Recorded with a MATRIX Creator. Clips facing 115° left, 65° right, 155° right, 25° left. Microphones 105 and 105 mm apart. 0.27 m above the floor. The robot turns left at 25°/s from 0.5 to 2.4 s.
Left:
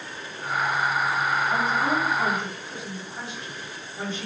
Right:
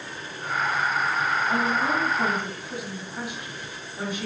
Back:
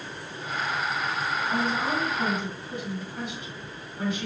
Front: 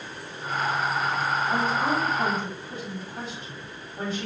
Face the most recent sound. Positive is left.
turn(degrees=0)